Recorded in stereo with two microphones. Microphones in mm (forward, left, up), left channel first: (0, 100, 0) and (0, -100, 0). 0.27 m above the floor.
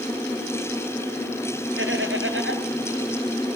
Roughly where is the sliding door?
No sliding door in this recording.